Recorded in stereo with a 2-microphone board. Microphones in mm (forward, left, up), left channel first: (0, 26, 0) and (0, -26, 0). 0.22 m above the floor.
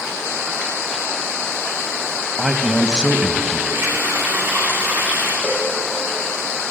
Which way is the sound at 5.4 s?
20° left (ahead or behind).